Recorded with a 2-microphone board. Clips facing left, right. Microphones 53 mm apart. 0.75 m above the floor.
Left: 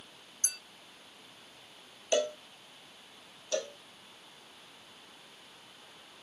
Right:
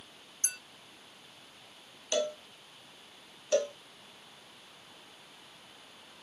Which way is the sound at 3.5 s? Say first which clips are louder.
Right 6 dB; 30° right (ahead or behind).